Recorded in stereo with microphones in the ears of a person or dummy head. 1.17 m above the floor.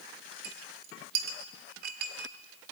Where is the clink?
60° right (ahead or behind), 1.0 m.